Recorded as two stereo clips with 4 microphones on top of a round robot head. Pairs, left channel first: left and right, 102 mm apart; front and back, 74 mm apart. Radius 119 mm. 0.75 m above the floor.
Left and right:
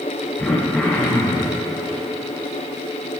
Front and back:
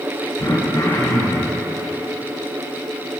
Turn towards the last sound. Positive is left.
turn(degrees=10)